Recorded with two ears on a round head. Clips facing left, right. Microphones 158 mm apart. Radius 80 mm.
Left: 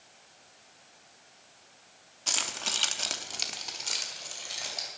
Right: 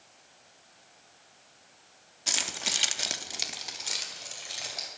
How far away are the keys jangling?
About 0.9 m.